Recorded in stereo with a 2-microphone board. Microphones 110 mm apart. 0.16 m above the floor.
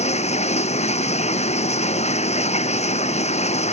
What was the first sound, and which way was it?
Running water, 80° left.